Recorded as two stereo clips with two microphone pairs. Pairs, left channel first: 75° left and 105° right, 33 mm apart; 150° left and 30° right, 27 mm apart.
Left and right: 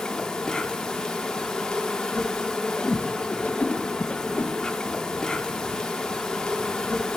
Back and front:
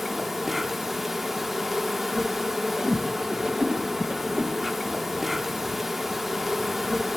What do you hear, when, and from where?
0.0 s an insect: 35° left, 0.7 m
2.8 s a whoosh: 25° left, 0.7 m